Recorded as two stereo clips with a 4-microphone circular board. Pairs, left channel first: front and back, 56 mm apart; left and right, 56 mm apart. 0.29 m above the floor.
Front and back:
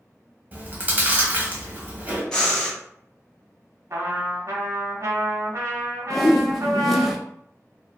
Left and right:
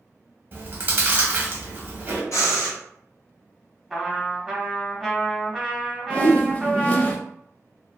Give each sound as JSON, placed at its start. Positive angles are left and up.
{"t": 0.5, "sound": "chewing", "azimuth_deg": -130, "distance_m": 0.7}
{"t": 2.3, "sound": "breathing", "azimuth_deg": 75, "distance_m": 1.0}
{"t": 3.9, "sound": "a trumpet", "azimuth_deg": 180, "distance_m": 0.9}
{"t": 6.1, "sound": "a whoosh", "azimuth_deg": 85, "distance_m": 0.5}